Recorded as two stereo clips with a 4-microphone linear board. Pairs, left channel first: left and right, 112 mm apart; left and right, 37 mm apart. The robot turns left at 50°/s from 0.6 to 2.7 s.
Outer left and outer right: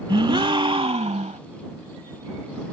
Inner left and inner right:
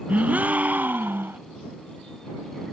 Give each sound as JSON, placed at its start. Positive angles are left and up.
{"t": 0.1, "sound": "a gasp", "azimuth_deg": -45}